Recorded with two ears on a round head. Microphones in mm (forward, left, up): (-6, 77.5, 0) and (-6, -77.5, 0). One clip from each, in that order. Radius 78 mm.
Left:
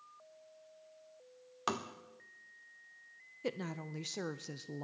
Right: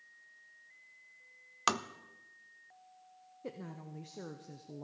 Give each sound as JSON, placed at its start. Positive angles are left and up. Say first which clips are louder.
{"t": 1.7, "sound": "tapping", "louder": "right 5 dB", "side_deg": -45, "distance_m": 0.6}
{"t": 3.4, "sound": "a woman speaking", "louder": "left 6 dB", "side_deg": 65, "distance_m": 0.5}